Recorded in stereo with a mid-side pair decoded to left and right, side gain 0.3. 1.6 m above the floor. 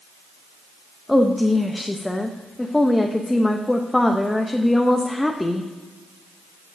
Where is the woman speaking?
15° left, 0.8 m.